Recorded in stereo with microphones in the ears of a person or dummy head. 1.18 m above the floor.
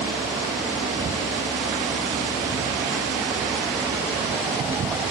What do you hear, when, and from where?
Only background noise.